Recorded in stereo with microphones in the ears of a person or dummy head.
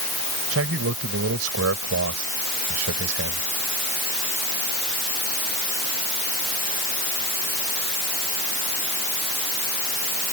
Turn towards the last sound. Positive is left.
turn(degrees=-90)